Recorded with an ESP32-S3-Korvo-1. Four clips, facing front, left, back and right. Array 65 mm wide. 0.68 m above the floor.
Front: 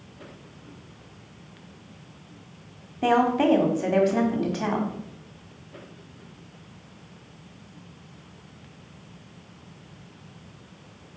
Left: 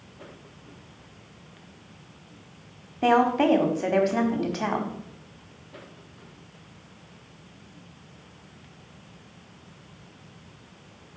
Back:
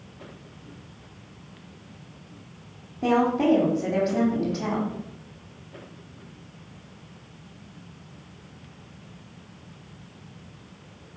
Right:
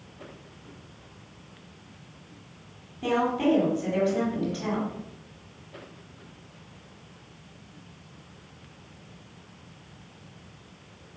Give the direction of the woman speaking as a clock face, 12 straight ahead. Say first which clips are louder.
Left 4 dB, front 1 dB; 10 o'clock.